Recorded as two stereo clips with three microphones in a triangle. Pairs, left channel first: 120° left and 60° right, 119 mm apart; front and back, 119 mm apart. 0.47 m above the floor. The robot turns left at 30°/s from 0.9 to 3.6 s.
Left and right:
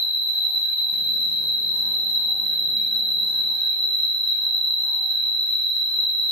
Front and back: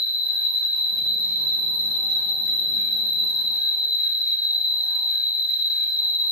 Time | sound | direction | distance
0.0 | an insect | 30° right | 1.5 m